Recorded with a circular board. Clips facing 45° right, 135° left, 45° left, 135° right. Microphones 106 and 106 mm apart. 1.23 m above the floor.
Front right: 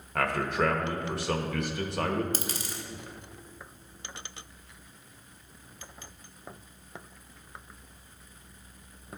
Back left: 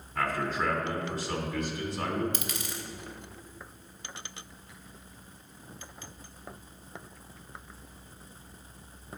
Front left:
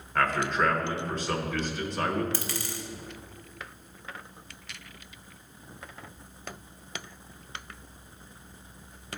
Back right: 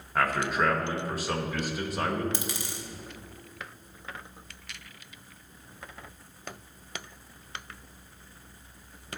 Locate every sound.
0.1 s a man speaking: 55° right, 1.1 m
2.3 s a dropped coin: 75° right, 0.8 m